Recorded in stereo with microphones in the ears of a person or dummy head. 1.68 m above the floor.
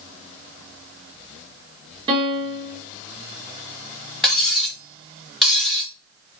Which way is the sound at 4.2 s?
5° left (ahead or behind).